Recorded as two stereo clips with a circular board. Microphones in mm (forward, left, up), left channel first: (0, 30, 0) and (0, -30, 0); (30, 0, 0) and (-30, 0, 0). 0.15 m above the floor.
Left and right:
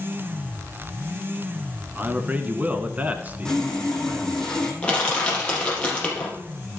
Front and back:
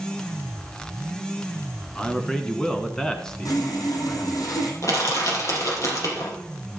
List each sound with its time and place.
1.9 s a man speaking: 65° right, 1.1 m
3.5 s sawing: 10° left, 2.5 m
4.8 s crushing: 20° left, 4 m